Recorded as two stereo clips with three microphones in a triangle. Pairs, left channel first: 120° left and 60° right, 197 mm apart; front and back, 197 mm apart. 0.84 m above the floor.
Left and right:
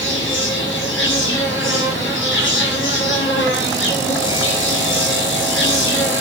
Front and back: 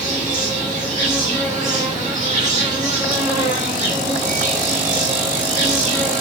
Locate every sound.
0.0 s an insect: 125° left, 1.0 m